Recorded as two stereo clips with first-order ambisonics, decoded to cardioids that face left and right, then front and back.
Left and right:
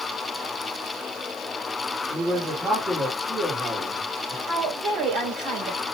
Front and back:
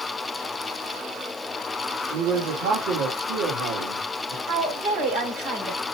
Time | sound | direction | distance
2.1 | a man speaking | 170° right | 2.5 m
4.5 | a woman speaking | 130° right | 4 m